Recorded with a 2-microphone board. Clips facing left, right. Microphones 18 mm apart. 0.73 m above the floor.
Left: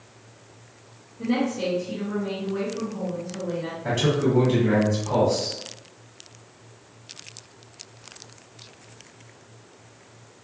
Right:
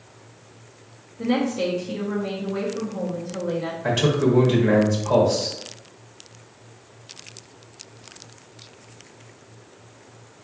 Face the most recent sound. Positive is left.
turn(degrees=-45)  # may be behind; listen again after turning